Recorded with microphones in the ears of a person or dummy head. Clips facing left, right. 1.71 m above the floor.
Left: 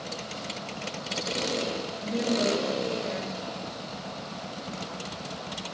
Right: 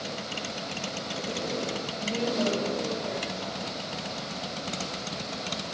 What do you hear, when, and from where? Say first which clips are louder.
2.0 s a woman speaking: left 1 dB; 20° left (ahead or behind), 0.7 m